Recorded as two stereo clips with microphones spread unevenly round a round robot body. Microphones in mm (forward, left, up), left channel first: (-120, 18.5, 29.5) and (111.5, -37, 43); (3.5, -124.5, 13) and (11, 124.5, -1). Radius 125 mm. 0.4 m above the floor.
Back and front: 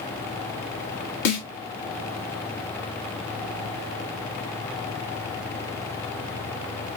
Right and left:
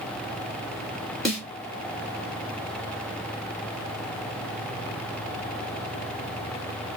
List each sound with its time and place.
1.2 s a snare drum: straight behind, 2 m